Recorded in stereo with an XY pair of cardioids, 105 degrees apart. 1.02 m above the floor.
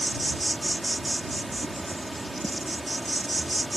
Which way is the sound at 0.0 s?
15° right.